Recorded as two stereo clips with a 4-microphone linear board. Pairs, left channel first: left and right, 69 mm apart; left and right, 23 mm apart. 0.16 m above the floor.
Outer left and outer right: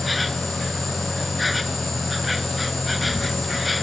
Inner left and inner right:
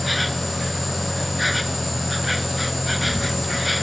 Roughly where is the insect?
Centre.